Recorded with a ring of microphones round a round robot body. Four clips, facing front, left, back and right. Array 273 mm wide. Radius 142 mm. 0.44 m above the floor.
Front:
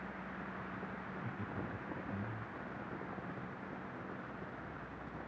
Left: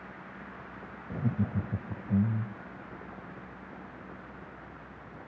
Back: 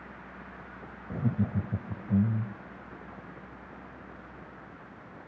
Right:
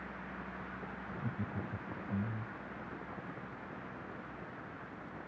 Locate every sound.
1.1 s laughter: 145° left